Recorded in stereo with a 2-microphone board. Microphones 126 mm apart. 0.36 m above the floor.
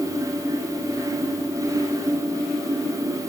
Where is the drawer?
No drawer in this recording.